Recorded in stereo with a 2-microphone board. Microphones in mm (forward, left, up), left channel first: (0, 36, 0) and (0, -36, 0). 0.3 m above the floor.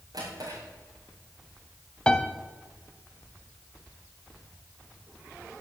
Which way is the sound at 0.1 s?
60° right (ahead or behind).